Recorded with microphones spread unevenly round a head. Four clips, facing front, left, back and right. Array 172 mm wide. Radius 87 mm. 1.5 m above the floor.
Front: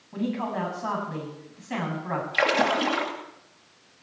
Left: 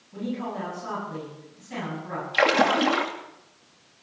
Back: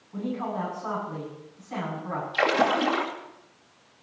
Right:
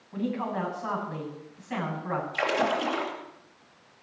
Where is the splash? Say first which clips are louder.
Left 7 dB, back 1 dB; 75° left, 2.5 m.